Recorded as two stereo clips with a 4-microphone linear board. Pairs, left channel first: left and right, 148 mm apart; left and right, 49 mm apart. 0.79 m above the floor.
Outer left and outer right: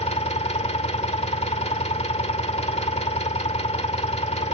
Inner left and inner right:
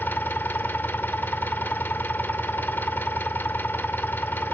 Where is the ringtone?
No ringtone in this recording.